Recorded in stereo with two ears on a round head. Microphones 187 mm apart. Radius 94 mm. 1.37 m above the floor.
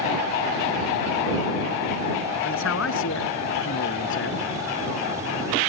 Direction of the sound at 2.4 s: 60° left (ahead or behind).